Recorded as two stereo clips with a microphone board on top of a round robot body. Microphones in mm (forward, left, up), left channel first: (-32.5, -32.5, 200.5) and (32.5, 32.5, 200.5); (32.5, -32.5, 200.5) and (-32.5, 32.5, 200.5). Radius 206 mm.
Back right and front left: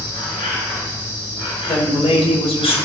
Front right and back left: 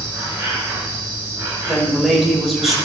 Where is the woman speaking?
135° right, 3.5 m.